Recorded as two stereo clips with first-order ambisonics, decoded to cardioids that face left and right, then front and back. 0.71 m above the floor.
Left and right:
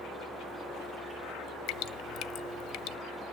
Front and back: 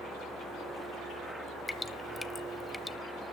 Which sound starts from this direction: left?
Dripping, at 1.7 s.